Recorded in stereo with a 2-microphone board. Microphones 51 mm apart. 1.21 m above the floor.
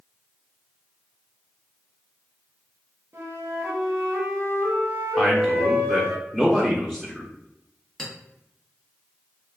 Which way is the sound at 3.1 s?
45° right (ahead or behind).